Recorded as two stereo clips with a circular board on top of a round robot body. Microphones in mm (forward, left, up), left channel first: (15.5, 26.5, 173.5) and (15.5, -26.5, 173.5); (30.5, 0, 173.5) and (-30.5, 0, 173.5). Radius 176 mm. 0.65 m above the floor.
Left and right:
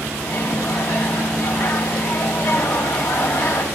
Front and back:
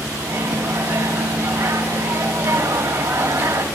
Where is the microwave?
120° left, 3 m.